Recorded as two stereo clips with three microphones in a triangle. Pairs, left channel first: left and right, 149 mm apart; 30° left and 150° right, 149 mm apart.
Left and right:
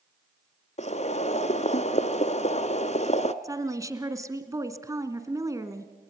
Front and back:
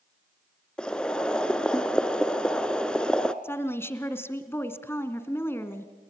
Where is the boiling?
110° left, 0.9 m.